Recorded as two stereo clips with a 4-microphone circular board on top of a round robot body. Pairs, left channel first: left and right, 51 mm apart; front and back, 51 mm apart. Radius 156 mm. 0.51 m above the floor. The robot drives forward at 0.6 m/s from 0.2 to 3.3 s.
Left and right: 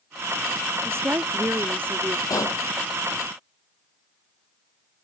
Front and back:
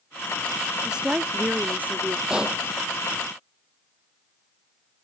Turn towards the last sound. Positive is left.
turn(degrees=110)